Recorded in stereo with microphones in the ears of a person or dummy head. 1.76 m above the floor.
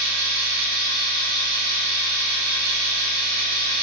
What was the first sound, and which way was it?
A machine running, 60° right (ahead or behind).